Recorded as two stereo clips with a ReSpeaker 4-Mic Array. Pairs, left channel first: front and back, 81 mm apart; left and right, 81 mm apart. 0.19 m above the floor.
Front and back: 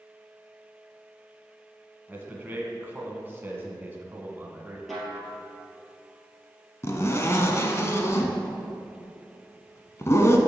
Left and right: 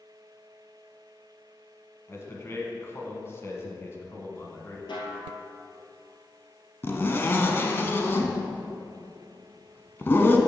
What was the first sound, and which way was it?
A man speaking, 125° left.